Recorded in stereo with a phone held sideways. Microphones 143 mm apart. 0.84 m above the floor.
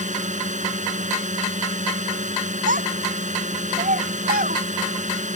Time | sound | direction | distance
0.0 | a drone | 55° right (ahead or behind) | ?
2.7 | a child speaking | 75° right (ahead or behind) | ?